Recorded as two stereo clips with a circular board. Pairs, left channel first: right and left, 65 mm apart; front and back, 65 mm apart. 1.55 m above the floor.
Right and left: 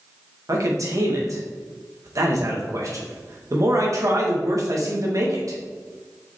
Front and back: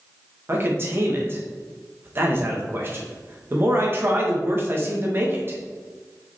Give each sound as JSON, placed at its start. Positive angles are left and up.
{"t": 0.5, "sound": "a man speaking", "azimuth_deg": 125, "distance_m": 1.8}